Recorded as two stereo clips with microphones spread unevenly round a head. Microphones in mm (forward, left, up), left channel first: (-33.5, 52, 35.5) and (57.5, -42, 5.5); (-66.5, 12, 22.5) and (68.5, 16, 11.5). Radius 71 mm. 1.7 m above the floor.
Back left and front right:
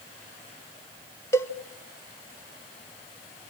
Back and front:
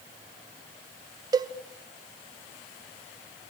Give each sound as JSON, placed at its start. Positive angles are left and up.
{"t": 1.3, "sound": "a cowbell", "azimuth_deg": 65, "distance_m": 0.6}